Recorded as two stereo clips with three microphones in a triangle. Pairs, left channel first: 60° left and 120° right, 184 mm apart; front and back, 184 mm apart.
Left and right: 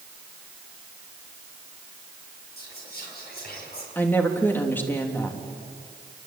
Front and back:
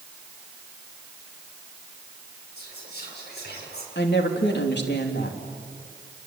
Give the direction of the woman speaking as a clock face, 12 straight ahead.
1 o'clock.